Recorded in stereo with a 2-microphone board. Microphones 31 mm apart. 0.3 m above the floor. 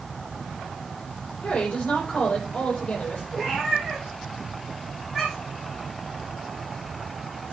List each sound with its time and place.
1.4 s a woman speaking: 40° left (ahead or behind), 9.5 m
3.3 s a cat meowing: 10° left (ahead or behind), 8 m